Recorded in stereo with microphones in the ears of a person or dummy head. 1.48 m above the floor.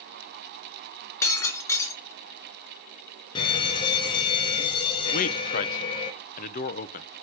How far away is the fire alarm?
About 1.0 m.